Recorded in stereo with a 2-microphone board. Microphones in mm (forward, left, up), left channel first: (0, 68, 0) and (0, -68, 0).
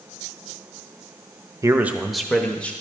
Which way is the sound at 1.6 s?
25° right (ahead or behind).